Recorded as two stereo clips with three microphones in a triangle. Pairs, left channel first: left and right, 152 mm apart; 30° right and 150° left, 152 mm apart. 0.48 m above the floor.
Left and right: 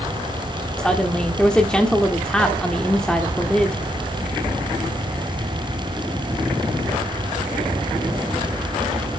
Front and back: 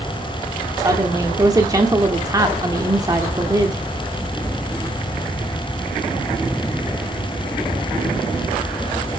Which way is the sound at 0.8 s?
165° left.